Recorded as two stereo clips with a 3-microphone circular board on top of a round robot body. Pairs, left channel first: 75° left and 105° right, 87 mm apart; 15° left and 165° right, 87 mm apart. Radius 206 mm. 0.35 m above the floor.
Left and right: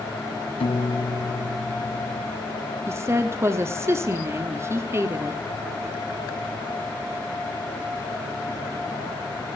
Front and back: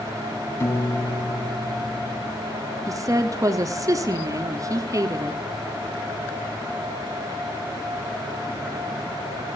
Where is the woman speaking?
145° right, 1.6 m.